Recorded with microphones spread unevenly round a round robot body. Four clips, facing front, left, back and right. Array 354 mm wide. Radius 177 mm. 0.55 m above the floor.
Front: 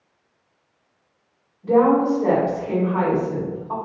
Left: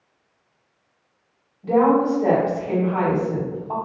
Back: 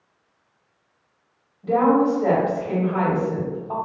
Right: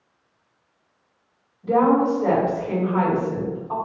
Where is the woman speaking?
130° left, 1.5 m.